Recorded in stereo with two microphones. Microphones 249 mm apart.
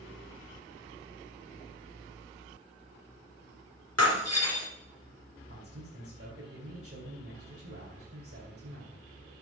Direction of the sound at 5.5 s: 55° right (ahead or behind).